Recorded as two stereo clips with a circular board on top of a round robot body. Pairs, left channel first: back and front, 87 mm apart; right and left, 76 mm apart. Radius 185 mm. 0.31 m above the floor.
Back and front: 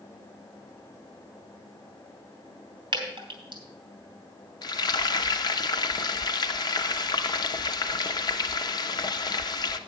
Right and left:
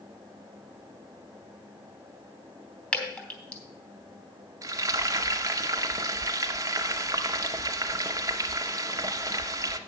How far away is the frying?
About 0.6 m.